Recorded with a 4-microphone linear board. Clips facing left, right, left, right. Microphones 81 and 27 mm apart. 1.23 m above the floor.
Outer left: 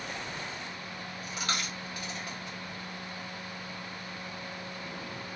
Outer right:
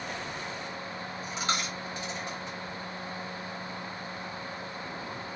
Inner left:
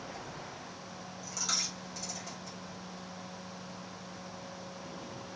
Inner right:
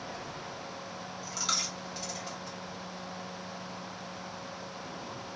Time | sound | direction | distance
0.1 | a dropped coin | 25° right (ahead or behind) | 1.1 m